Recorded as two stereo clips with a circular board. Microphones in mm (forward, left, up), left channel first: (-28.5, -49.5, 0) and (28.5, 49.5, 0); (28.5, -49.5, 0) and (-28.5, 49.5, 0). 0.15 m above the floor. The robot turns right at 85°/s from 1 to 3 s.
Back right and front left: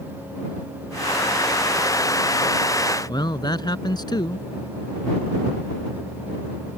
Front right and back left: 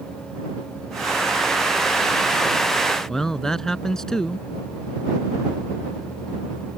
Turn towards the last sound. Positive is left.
turn(degrees=-145)